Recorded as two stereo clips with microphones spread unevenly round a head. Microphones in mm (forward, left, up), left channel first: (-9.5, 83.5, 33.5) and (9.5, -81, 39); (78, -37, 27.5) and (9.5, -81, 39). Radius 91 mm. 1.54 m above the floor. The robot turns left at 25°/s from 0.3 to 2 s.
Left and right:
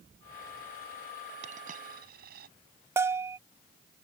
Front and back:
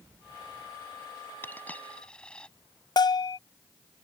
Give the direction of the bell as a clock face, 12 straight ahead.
12 o'clock.